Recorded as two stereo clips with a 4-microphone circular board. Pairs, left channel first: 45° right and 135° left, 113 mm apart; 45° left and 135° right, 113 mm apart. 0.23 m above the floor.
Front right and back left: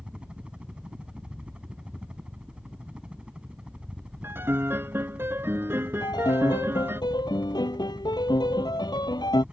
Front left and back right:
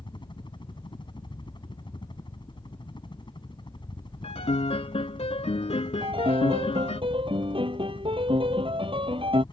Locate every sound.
0.0 s a helicopter: 55° left
4.2 s a piano: 65° left
6.0 s a piano: 95° right